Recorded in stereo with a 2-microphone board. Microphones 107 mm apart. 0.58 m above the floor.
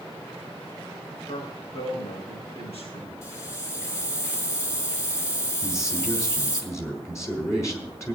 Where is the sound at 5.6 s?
25° left (ahead or behind), 4.5 m.